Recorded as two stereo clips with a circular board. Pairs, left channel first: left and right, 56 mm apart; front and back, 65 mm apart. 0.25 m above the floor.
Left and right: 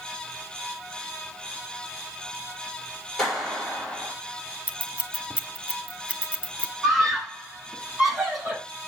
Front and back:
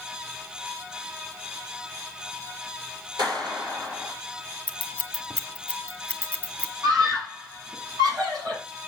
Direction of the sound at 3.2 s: 170° left.